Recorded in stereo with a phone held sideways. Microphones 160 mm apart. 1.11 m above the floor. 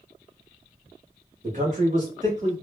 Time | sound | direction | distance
1.4 | a man speaking | 50° right (ahead or behind) | 1.7 m